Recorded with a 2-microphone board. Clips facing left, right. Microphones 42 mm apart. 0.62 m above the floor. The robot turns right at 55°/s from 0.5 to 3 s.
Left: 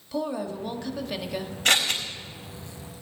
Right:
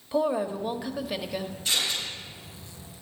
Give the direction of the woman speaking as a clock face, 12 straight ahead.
1 o'clock.